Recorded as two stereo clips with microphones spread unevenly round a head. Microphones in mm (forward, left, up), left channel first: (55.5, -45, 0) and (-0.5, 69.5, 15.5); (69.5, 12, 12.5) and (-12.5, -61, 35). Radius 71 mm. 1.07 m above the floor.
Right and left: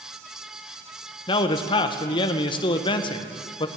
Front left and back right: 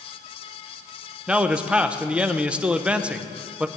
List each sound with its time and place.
1.3 s a man speaking: 50° right, 0.7 m